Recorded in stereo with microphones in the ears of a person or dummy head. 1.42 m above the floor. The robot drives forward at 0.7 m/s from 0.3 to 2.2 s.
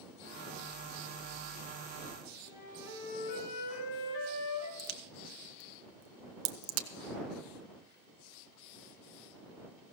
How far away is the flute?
About 3.5 m.